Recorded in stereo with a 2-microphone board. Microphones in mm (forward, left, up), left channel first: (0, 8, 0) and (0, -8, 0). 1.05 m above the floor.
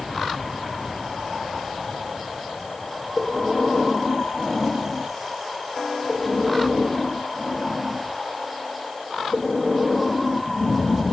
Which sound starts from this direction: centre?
Breathing, at 3.2 s.